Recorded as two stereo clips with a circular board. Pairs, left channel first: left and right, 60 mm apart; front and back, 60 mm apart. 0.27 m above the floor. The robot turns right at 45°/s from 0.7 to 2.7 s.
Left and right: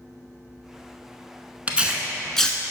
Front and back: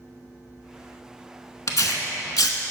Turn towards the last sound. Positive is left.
turn(degrees=25)